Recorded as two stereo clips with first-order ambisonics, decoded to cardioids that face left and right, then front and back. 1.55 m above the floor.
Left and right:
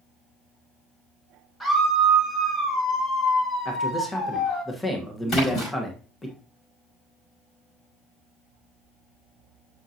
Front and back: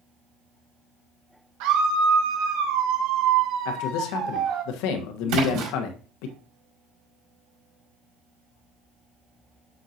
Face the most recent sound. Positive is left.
turn(degrees=150)